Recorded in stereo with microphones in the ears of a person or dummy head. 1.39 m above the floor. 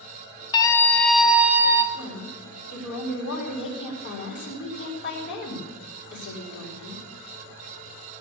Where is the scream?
30° left (ahead or behind), 1.2 m; by 1.8 s 10° right (ahead or behind), 2 m.